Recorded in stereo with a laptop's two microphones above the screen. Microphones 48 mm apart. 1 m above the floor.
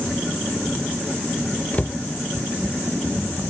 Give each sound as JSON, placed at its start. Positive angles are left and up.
{"t": 1.7, "sound": "a cupboard door", "side_deg": 30, "distance_m": 0.6}